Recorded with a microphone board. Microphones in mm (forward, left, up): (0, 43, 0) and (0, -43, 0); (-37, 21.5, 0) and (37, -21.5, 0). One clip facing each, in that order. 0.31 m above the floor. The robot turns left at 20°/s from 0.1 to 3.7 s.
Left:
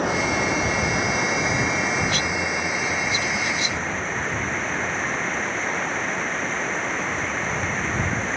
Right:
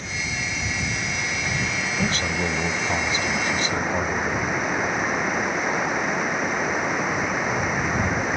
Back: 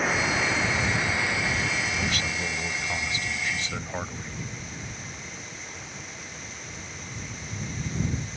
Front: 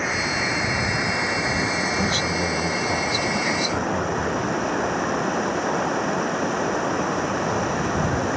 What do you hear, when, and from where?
0.0 s running water: 60° left; by 8.4 s 10° right
2.0 s a man speaking: 65° right; by 4.4 s 100° right